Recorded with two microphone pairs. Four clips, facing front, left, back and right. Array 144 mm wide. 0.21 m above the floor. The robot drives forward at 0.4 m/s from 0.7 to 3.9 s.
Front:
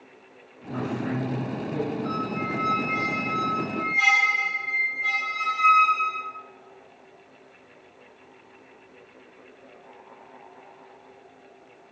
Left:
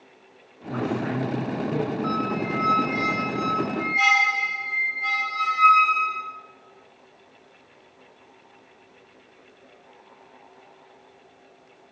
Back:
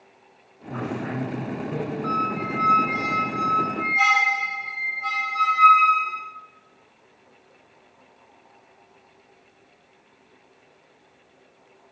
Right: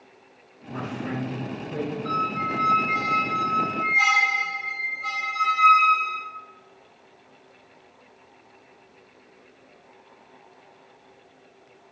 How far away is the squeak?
About 2 m.